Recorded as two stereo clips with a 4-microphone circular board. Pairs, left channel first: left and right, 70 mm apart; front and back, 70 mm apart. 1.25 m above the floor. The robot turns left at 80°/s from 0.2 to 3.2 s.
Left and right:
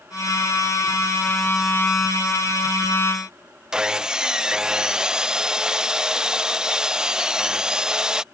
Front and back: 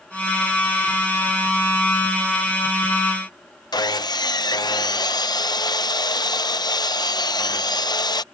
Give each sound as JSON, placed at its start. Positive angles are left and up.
{"t": 3.7, "sound": "sawing", "azimuth_deg": -10}